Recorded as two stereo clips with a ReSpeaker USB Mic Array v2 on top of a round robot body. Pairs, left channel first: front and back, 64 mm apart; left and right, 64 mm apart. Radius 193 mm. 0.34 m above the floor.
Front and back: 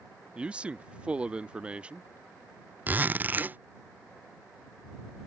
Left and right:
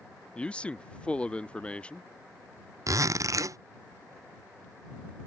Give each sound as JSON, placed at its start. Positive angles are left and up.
{"t": 0.3, "sound": "a man speaking", "azimuth_deg": 135}
{"t": 2.9, "sound": "a zipper", "azimuth_deg": -120}